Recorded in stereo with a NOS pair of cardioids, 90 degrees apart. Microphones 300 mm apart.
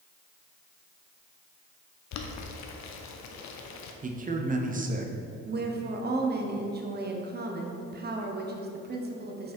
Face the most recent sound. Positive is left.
turn(degrees=-35)